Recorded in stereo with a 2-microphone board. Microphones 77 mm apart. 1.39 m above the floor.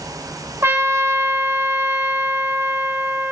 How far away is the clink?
I don't hear a clink.